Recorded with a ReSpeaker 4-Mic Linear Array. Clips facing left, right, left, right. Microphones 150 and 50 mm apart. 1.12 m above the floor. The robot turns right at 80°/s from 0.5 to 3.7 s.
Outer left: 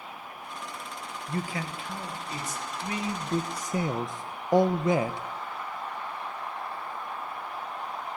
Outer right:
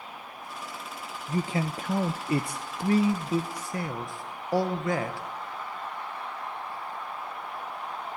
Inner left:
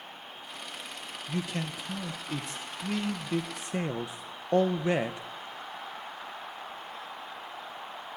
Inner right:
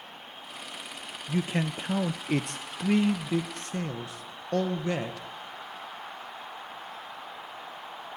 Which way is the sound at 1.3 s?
170° right.